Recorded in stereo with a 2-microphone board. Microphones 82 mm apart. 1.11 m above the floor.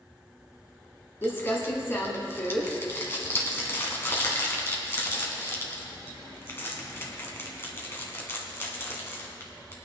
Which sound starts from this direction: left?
Crumpling, at 1.2 s.